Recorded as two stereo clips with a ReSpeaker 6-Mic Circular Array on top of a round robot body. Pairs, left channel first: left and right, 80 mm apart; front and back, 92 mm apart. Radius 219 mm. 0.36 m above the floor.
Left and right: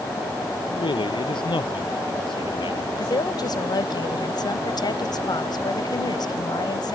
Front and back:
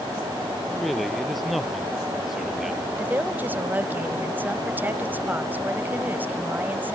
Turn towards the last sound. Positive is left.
turn(degrees=110)